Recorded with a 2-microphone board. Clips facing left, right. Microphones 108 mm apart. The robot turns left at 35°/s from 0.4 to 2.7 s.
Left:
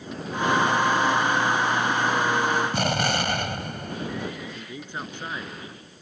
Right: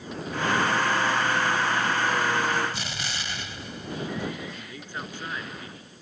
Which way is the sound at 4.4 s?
20° left (ahead or behind).